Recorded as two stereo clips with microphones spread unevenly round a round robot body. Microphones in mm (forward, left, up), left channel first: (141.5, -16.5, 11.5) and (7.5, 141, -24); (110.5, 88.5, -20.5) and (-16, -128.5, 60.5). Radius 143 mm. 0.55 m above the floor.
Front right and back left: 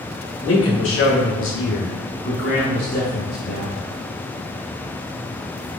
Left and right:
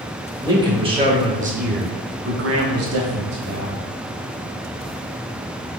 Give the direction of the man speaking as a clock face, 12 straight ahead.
1 o'clock.